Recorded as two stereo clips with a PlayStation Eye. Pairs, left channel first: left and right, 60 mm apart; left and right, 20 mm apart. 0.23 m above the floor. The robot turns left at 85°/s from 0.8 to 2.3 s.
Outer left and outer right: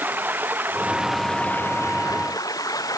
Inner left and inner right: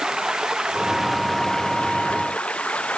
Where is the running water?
150° right; by 3.0 s 85° left.